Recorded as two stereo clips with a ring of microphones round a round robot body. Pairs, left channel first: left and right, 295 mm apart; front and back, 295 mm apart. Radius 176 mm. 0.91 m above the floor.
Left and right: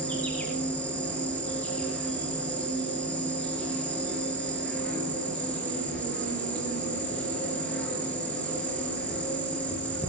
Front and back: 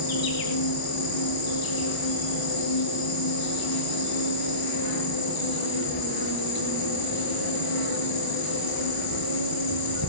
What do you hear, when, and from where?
0.0 s an insect: 5° left, 4.5 m